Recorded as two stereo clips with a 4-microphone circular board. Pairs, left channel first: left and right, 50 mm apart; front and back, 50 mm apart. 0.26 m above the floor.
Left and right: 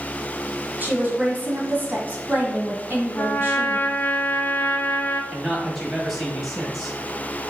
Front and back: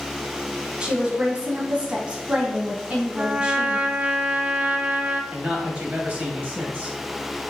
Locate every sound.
0.8 s a woman speaking: 120° right, 1.5 m
3.1 s a trumpet: 125° left, 0.6 m
5.3 s a man speaking: 175° left, 1.2 m